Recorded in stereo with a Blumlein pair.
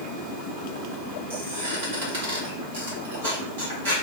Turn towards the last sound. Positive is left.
turn(degrees=-65)